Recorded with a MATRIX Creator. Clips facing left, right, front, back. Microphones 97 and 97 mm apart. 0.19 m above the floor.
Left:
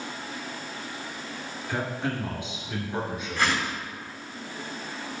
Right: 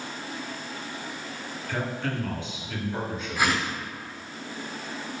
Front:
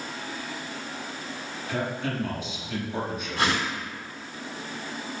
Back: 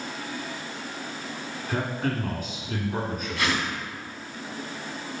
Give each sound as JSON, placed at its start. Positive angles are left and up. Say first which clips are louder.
{"t": 1.7, "sound": "a man speaking", "louder": "left 1 dB, back 1 dB", "azimuth_deg": 160, "distance_m": 1.9}
{"t": 3.4, "sound": "a whoosh", "louder": "right 1 dB, front 2 dB", "azimuth_deg": -15, "distance_m": 1.4}